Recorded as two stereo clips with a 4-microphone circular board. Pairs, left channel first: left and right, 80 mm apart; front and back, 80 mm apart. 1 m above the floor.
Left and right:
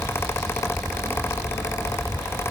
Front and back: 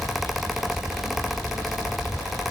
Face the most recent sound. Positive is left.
No sound to turn to.